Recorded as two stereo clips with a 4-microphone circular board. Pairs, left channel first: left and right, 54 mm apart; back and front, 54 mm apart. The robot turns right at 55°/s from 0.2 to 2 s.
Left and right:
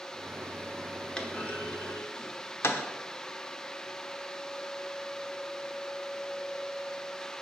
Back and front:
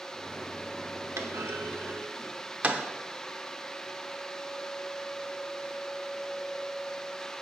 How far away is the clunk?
About 0.9 m.